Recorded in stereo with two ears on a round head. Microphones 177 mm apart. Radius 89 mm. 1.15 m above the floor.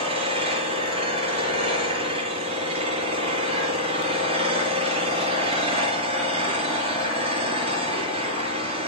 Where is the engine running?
30° right (ahead or behind), 5 m.